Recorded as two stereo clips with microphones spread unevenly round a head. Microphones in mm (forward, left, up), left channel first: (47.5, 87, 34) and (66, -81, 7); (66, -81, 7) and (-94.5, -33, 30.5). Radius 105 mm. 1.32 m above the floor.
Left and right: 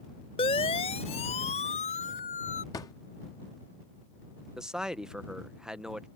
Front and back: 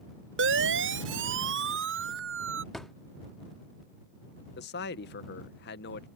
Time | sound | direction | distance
0.4 | a siren | 165° left | ?
2.7 | a drawer | 90° left | ?
4.6 | a man speaking | straight ahead | ?